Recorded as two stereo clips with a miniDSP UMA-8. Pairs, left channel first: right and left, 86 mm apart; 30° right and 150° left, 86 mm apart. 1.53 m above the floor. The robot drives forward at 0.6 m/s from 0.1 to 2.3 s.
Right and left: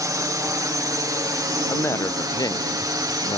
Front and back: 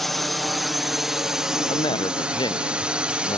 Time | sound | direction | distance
0.0 | a drone | 55° left | ?
1.7 | a woman speaking | 30° right | ?